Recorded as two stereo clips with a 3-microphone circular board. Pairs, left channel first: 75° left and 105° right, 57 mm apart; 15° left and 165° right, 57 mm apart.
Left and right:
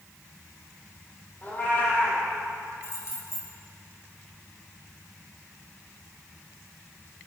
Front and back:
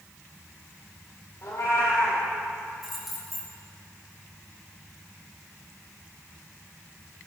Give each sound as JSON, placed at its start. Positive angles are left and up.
{"t": 1.4, "sound": "a cat meowing", "azimuth_deg": 20, "distance_m": 3.5}
{"t": 2.8, "sound": "keys jangling", "azimuth_deg": 110, "distance_m": 3.0}